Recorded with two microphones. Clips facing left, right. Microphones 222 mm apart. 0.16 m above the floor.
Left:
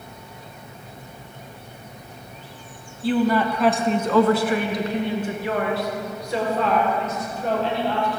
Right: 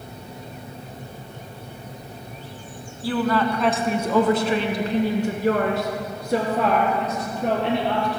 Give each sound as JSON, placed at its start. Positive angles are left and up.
{"t": 3.0, "sound": "a woman speaking", "side_deg": 25, "distance_m": 1.2}